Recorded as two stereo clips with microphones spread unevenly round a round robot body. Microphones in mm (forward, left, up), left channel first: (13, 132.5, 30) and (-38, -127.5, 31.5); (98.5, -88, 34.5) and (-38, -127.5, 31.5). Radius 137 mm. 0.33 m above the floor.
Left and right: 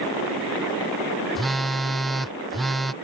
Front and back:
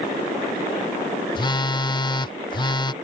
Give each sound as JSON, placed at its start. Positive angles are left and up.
{"t": 1.4, "sound": "a phone buzzing", "azimuth_deg": -10}